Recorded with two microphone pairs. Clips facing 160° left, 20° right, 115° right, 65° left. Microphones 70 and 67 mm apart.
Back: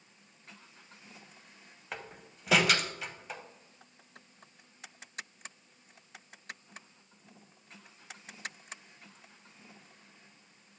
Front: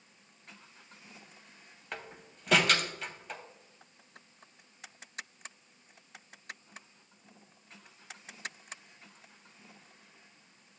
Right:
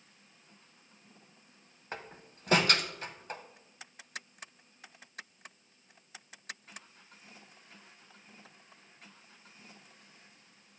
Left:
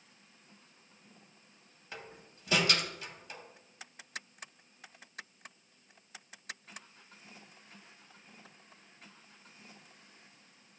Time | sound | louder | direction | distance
1.9 | a door slam | even, right 4 dB | 115° right | 0.8 m